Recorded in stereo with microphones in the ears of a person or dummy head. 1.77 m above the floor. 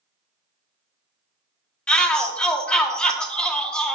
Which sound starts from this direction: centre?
A shout, at 1.9 s.